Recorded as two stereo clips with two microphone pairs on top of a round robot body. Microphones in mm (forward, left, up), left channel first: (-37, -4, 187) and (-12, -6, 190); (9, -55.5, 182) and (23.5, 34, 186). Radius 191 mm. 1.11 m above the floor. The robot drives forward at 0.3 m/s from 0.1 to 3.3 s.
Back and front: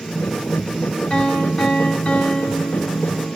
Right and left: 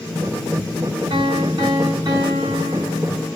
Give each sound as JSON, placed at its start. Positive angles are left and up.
{"t": 1.1, "sound": "a piano", "azimuth_deg": 120, "distance_m": 2.0}